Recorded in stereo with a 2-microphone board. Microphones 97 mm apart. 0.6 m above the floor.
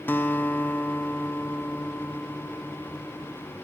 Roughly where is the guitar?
Left.